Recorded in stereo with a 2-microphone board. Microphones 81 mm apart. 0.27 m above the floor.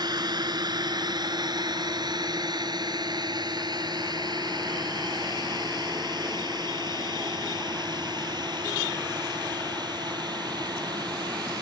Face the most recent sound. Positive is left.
turn(degrees=-60)  # may be behind; listen again after turning